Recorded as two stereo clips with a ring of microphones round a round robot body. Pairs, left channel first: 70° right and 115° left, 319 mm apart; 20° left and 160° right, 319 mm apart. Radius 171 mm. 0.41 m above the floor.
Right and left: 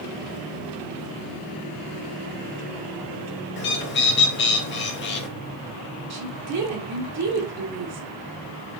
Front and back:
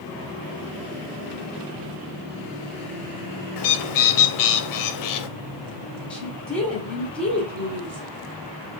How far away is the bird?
About 0.7 m.